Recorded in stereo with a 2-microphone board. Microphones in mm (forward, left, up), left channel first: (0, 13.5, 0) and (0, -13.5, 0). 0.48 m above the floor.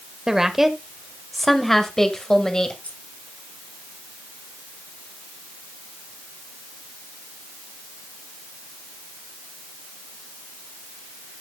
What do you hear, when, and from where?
0.3 s a woman speaking: 20° right (ahead or behind), 1.5 m; by 2.7 s 25° left (ahead or behind), 2 m
2.8 s keys jangling: 80° left, 5.5 m